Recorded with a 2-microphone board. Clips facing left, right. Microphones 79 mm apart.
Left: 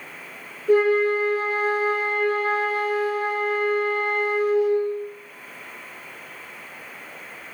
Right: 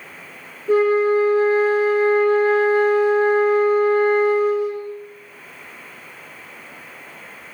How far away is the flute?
About 1.2 m.